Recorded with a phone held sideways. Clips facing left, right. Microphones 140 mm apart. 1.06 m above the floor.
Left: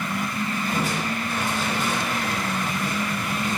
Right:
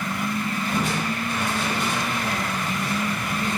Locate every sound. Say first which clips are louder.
0.7 s crushing: right 2 dB; centre (ahead or behind), 4 m